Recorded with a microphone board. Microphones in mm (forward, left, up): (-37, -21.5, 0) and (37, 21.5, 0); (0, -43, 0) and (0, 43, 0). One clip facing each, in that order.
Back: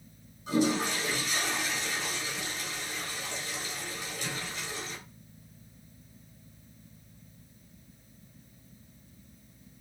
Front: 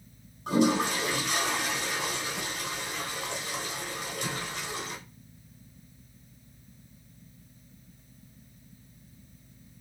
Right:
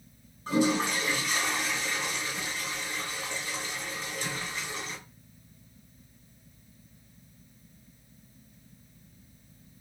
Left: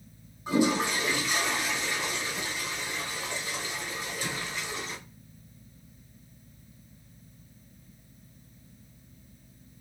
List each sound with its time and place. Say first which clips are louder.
0.5 s a toilet flushing: front 3 dB, left 1 dB; 15° left, 2.0 m